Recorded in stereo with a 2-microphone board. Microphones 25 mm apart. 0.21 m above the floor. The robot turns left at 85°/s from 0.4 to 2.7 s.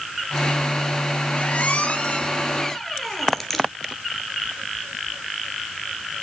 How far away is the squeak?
About 2.5 m.